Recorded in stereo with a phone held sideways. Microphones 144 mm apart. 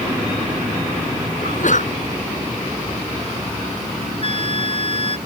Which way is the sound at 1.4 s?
60° left (ahead or behind).